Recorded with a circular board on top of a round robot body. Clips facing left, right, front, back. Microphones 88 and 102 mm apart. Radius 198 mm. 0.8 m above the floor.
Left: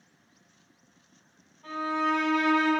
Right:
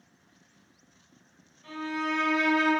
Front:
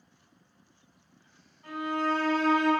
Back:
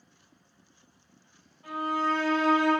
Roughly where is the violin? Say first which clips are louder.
Left 4 dB, back 1 dB; left.